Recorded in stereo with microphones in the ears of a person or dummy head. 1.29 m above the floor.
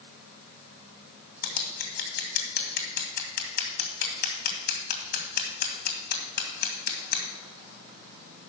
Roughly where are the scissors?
Left.